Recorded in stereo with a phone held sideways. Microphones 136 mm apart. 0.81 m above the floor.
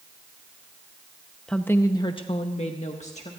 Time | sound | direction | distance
1.5 | a woman speaking | 5° left (ahead or behind) | 0.8 m